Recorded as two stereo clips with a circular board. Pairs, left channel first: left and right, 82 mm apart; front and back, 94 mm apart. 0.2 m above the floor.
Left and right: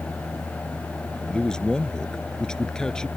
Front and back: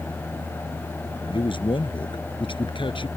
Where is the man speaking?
10° left.